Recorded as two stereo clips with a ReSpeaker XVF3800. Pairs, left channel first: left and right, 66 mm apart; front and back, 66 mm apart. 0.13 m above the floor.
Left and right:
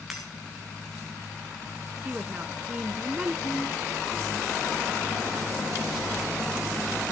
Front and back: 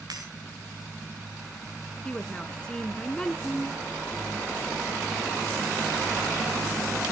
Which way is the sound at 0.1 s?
175° right.